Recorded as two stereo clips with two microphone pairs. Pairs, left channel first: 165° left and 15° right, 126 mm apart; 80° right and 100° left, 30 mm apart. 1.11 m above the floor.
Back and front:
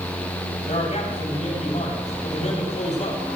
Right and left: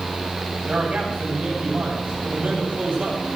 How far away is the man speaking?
About 8.5 m.